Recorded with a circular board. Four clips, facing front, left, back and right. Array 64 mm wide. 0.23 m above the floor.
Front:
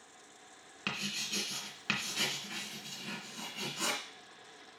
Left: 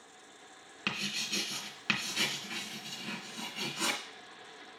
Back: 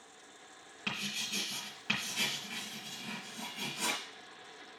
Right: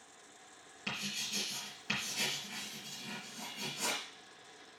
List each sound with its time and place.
0.9 s writing: 70° left, 2.5 m